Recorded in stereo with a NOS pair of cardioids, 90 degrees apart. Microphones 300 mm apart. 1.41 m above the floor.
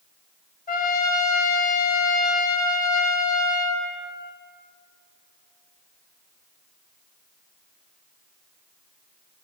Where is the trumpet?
30° left, 1.3 m.